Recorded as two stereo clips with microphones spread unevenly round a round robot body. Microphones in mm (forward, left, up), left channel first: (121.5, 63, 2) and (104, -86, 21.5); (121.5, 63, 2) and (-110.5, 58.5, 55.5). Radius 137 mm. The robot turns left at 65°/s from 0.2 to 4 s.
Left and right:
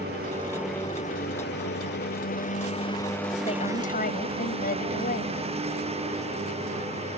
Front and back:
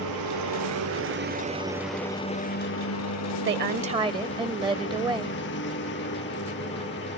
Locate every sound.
0.0 s a lawn mower: 155° right; by 7.2 s 50° right
3.5 s a woman speaking: 140° left; by 5.4 s 105° left